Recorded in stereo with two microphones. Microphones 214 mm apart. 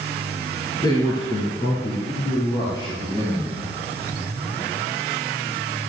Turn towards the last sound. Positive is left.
turn(degrees=20)  # may be behind; listen again after turning